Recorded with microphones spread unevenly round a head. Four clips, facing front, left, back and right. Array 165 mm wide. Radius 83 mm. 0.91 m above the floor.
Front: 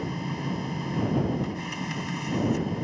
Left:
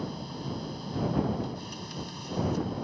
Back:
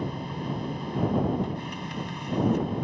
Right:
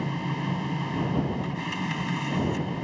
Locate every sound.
0.0 s a machine running: 60° right